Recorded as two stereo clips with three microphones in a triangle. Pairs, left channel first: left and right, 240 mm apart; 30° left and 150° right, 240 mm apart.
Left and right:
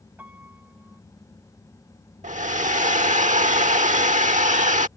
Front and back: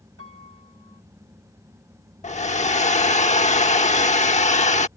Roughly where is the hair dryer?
Ahead right.